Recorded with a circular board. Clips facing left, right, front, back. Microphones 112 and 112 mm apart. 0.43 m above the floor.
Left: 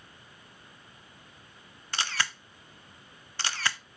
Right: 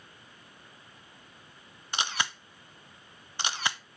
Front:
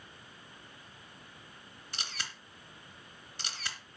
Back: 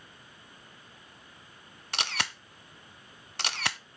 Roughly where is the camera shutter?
Behind.